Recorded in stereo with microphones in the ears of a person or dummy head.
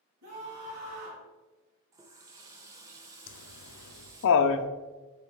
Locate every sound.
0.2 s a scream: 70° right (ahead or behind), 3 m
1.9 s a running tap: 20° right (ahead or behind), 0.6 m
3.3 s laughter: 65° left (ahead or behind), 0.6 m